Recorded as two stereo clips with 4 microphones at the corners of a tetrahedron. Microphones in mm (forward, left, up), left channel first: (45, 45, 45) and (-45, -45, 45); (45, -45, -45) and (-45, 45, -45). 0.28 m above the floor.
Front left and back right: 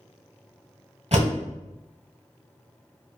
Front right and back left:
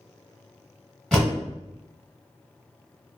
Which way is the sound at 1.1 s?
125° right.